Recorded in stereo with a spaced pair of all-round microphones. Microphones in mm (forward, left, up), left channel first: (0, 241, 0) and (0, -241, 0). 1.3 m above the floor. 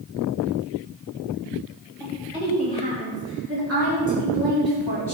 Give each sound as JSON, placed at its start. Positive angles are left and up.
{"t": 2.0, "sound": "a woman speaking", "side_deg": -10, "distance_m": 3.0}